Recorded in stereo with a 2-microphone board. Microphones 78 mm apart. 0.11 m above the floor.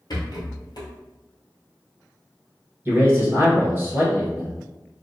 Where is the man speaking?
30° right (ahead or behind), 1.7 m.